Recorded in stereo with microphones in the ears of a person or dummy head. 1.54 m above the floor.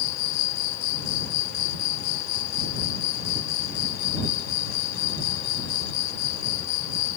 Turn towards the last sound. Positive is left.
turn(degrees=75)  # may be behind; listen again after turning